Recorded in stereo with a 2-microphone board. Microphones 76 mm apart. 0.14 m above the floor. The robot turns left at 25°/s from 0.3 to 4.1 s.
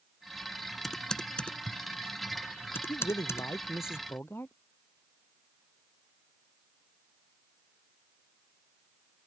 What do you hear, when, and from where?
0.8 s typing on a keyboard: centre (ahead or behind); by 3.5 s 35° left (ahead or behind)
2.9 s a man speaking: 60° left; by 4.5 s 30° left